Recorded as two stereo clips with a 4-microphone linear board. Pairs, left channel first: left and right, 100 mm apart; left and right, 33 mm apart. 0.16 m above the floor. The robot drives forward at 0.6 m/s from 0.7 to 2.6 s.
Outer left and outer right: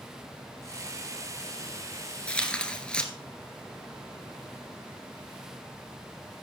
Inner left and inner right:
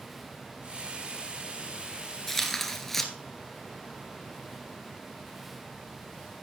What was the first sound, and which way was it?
Tearing paper, 10° left (ahead or behind).